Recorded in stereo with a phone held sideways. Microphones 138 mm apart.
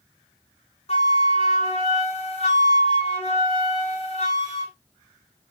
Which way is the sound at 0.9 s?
45° left (ahead or behind).